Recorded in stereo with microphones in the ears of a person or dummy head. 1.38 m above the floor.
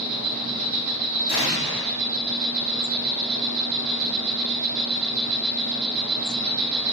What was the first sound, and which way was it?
An insect, 70° right (ahead or behind).